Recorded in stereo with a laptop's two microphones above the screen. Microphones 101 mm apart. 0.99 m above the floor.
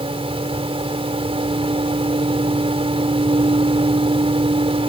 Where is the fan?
70° right (ahead or behind).